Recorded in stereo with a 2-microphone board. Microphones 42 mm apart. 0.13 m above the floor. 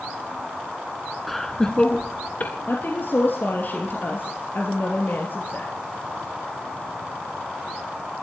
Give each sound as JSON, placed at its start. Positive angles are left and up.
{"t": 1.3, "sound": "laughter", "side_deg": 0, "distance_m": 1.1}
{"t": 2.7, "sound": "a woman speaking", "side_deg": 50, "distance_m": 2.5}